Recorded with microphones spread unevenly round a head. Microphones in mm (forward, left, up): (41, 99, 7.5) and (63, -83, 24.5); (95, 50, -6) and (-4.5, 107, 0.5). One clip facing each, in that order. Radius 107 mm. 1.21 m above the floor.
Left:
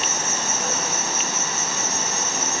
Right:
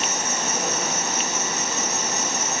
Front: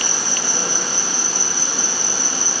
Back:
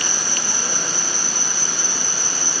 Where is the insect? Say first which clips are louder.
Right 1 dB, front 2 dB; 10° right, 2.5 m.